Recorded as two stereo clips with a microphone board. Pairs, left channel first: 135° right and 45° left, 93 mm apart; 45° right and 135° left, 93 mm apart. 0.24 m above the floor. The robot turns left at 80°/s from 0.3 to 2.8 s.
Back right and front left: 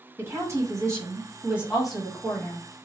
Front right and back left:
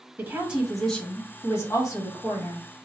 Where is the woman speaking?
80° left, 1.1 m; by 2.6 s 105° right, 1.1 m.